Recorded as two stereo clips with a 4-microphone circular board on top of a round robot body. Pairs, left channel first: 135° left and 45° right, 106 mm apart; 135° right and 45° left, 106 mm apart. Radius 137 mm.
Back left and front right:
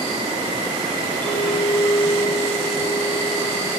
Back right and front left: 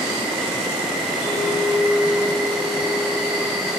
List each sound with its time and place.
0.0 s an insect: 40° right, 6 m
1.2 s a clink: 155° right, 4 m